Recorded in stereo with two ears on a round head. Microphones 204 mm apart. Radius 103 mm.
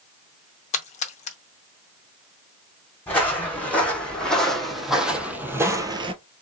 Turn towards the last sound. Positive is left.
turn(degrees=-25)  # may be behind; listen again after turning